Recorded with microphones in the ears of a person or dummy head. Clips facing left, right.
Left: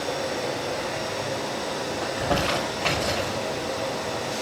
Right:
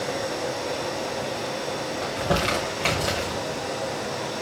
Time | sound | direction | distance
2.0 | crumpling | 45° right (ahead or behind) | 6 m